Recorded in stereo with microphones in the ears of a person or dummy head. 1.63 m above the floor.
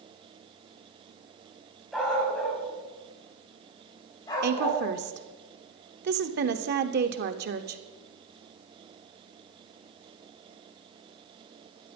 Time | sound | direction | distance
1.9 | a dog barking | 5° left (ahead or behind) | 5 m
4.4 | a woman speaking | 60° right (ahead or behind) | 0.8 m